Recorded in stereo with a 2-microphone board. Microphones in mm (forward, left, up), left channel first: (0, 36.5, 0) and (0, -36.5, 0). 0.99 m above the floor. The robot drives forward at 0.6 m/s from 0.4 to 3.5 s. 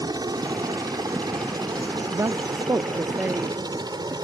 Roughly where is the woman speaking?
Right.